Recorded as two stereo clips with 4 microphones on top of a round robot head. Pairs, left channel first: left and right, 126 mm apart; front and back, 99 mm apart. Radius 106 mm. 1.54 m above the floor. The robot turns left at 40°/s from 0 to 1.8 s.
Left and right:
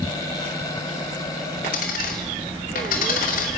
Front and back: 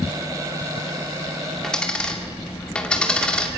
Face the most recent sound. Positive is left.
turn(degrees=75)